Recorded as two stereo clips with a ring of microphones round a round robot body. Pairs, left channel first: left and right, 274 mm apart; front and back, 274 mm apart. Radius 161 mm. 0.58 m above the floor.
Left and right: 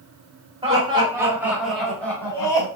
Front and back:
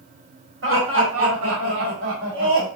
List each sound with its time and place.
0.6 s laughter: 155° right, 1.9 m; by 2.7 s 160° left, 1.9 m